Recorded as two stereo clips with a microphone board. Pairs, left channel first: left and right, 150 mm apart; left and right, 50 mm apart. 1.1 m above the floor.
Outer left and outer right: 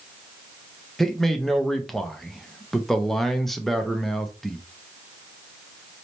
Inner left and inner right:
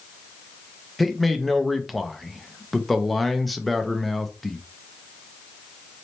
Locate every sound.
1.0 s a man speaking: centre (ahead or behind), 0.7 m